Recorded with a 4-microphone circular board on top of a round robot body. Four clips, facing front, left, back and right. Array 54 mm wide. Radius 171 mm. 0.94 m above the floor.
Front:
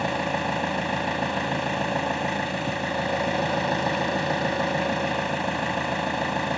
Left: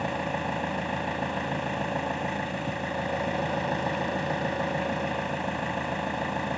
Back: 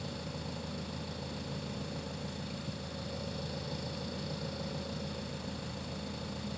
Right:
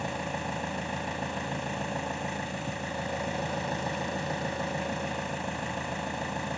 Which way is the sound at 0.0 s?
15° left.